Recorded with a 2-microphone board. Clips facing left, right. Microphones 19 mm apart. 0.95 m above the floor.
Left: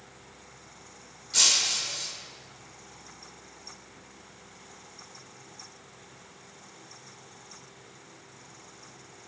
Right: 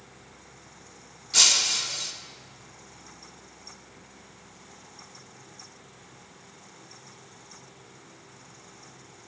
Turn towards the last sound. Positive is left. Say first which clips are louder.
# right 3 dB
turn(degrees=-15)  # may be behind; listen again after turning